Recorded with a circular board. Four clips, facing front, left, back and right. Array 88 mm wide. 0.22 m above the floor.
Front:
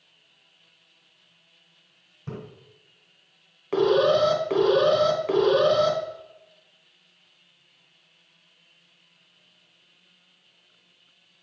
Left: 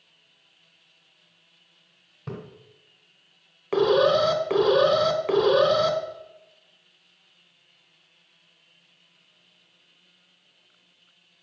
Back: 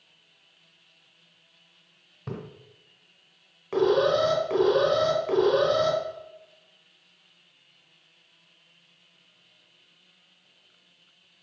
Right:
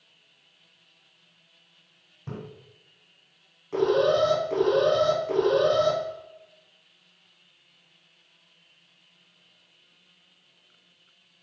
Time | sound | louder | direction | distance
2.3 | a splash | left 2 dB, back 1 dB | 140° left | 1.7 m
3.7 | an alarm | left 2 dB, front 2 dB | 80° left | 1.0 m